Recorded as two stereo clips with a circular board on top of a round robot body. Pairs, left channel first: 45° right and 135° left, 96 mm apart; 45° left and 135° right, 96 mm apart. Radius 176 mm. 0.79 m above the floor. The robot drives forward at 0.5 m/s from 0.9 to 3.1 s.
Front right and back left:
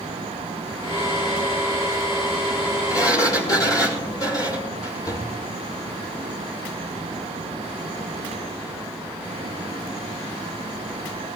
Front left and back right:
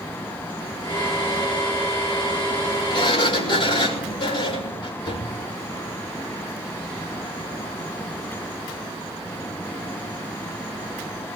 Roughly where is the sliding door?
Ahead.